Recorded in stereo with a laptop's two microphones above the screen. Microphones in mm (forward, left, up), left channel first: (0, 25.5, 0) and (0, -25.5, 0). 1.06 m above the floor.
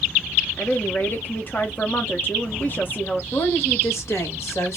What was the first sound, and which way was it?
A woman speaking, 40° left (ahead or behind).